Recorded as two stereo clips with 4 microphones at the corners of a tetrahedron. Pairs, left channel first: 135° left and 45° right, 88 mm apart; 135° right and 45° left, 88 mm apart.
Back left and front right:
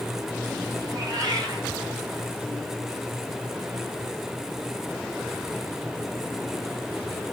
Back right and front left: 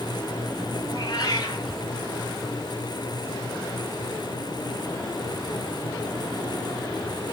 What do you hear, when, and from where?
0.9 s a cat meowing: 95° right, 3.5 m